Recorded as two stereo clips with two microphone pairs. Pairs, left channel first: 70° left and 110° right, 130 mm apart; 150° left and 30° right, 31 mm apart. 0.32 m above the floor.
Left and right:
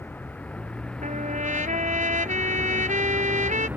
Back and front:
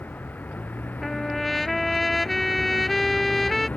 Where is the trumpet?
130° right.